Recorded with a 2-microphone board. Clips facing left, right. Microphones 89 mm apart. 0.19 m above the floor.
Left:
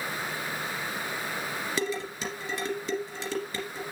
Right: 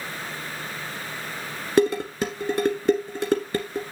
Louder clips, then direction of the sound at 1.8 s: Right 14 dB; 50° right (ahead or behind).